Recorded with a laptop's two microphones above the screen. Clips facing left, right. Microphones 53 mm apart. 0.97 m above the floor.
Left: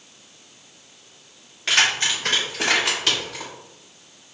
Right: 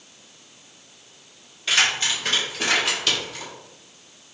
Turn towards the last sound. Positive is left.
turn(degrees=75)  # may be behind; listen again after turning